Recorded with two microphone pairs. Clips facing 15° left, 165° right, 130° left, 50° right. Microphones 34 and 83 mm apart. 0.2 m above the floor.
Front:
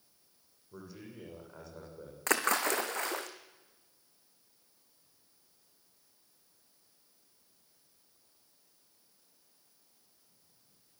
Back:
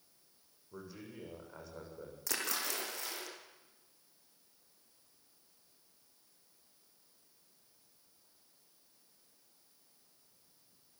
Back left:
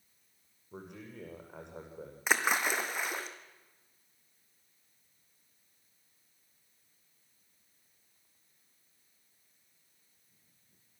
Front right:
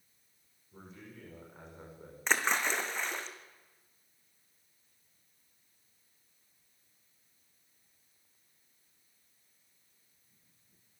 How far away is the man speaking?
About 8.5 m.